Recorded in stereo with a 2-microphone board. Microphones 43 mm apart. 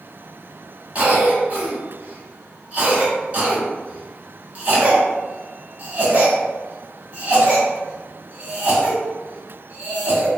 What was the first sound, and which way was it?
A cough, 35° right (ahead or behind).